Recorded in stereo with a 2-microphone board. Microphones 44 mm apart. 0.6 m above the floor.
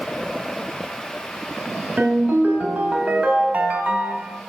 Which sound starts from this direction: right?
A ringtone, at 2.0 s.